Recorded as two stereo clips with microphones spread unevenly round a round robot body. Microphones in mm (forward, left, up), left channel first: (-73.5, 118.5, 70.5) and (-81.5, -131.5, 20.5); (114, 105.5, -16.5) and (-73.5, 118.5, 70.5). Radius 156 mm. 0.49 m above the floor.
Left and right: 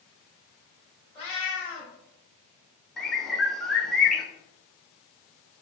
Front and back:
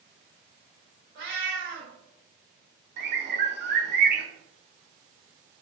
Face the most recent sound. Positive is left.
turn(degrees=-160)